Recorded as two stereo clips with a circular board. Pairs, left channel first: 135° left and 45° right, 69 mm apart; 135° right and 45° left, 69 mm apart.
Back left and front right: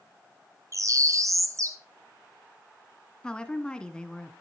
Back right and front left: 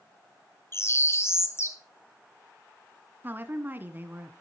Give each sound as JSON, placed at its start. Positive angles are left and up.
{"t": 0.7, "sound": "a bird", "azimuth_deg": -85, "distance_m": 1.5}
{"t": 3.2, "sound": "a woman speaking", "azimuth_deg": 70, "distance_m": 1.3}